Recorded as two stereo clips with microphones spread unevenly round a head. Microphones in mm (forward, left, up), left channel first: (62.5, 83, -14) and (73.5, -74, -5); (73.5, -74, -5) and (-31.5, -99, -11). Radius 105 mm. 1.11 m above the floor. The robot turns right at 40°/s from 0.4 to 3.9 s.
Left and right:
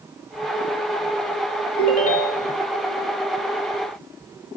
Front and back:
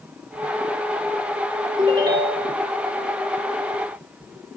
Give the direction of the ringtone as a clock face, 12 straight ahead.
8 o'clock.